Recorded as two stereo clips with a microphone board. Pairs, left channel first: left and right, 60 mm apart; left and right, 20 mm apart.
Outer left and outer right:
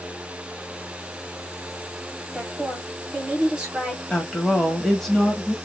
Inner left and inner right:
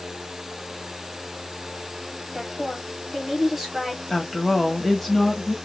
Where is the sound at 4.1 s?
5° left (ahead or behind), 1.2 m.